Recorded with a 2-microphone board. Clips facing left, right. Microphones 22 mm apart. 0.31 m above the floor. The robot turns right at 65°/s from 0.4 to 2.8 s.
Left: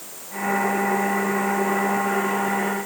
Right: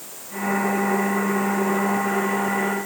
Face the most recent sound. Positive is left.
No sound to turn to.